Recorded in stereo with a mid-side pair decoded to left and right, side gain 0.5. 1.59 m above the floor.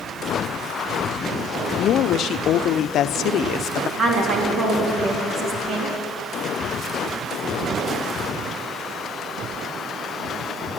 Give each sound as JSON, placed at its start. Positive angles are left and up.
{"t": 1.8, "sound": "a woman speaking", "azimuth_deg": 65, "distance_m": 0.6}
{"t": 4.0, "sound": "a woman speaking", "azimuth_deg": -55, "distance_m": 3.0}